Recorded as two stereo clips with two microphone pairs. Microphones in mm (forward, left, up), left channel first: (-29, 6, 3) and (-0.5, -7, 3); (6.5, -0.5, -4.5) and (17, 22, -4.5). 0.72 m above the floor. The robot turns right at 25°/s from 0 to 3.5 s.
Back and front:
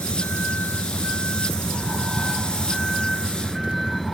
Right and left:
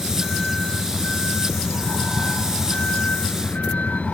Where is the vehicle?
150° left; by 4.1 s 120° right.